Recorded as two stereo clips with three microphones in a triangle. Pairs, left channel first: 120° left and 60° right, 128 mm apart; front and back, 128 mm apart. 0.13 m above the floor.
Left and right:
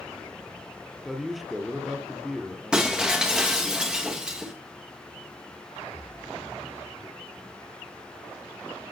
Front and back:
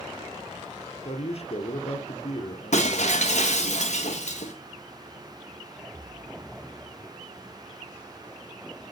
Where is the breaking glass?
25° left, 2.5 m.